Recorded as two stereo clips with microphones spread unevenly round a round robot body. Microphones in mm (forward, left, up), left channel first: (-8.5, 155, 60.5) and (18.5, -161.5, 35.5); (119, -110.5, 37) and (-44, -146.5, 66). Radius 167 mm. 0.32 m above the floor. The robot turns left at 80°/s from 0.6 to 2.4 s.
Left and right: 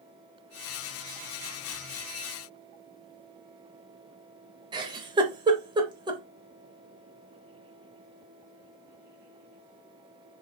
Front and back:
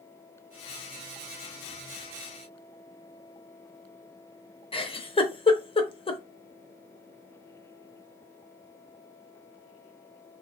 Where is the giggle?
20° right, 0.8 m.